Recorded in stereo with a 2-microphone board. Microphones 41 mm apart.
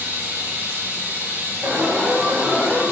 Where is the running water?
50° right (ahead or behind), 7 m.